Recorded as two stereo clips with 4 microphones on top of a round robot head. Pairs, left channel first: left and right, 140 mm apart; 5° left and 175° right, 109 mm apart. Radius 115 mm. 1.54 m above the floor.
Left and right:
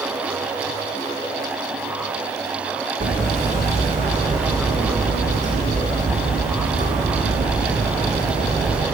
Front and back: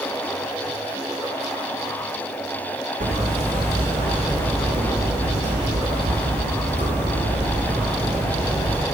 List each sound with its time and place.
3.0 s hammering: 140° right, 3.5 m